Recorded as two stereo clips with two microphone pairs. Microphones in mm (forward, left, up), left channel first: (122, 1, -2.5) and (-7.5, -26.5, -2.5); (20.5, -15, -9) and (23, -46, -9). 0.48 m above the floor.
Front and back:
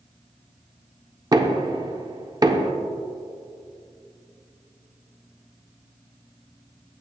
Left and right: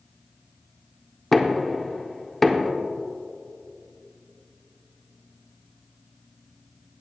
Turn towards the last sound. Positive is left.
turn(degrees=180)